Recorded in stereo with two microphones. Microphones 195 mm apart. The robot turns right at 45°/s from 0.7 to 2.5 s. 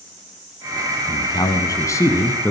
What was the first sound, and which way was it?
A man speaking, 20° left (ahead or behind).